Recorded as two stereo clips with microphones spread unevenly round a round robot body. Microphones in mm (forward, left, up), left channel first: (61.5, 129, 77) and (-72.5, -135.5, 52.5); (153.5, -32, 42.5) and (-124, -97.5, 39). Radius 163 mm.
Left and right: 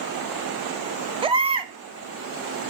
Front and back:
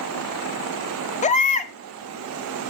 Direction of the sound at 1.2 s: 50° right.